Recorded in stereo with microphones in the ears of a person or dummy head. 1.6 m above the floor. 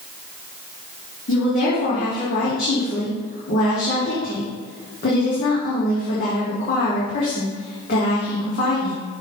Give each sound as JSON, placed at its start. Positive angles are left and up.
{"t": 1.3, "sound": "a woman speaking", "side_deg": 40, "distance_m": 2.0}